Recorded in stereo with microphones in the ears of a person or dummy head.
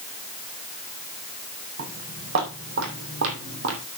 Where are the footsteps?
65° right (ahead or behind), 5 m.